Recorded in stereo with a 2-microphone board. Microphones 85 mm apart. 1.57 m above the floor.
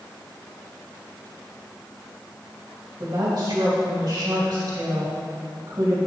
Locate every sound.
3.0 s a woman speaking: 50° right (ahead or behind), 3 m